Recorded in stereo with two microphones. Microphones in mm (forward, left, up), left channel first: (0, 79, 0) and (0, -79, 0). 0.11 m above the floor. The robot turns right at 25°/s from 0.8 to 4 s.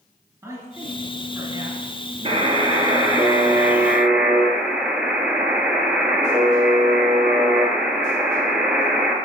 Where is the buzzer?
50° right, 1.0 m; by 9.2 s 5° right, 1.0 m.